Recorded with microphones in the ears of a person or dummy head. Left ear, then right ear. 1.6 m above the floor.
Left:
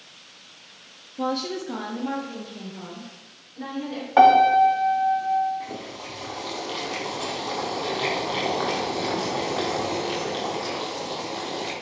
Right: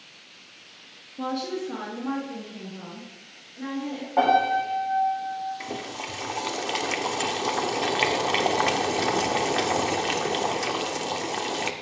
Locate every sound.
1.2 s a woman speaking: 5° left (ahead or behind), 0.6 m; by 4.1 s 20° left (ahead or behind), 3 m
4.2 s a piano: 65° left (ahead or behind), 2 m
5.6 s boiling: 70° right (ahead or behind), 1.0 m